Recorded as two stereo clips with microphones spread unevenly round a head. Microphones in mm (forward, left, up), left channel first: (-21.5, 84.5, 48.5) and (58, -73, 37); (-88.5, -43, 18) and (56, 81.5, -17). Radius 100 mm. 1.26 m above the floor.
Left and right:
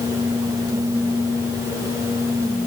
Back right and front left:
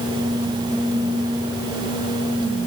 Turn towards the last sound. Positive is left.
No sound to turn to.